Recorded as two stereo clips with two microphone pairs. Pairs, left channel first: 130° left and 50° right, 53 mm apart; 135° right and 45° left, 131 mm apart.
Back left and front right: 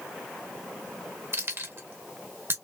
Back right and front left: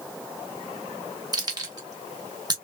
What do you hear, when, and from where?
1.3 s keys jangling: 15° right, 1.7 m